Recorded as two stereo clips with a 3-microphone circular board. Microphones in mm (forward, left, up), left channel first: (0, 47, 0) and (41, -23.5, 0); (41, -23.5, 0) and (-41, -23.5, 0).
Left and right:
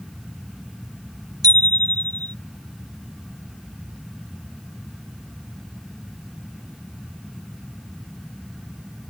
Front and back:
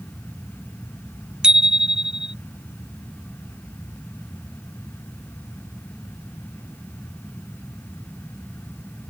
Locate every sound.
1.4 s a bicycle bell: 100° right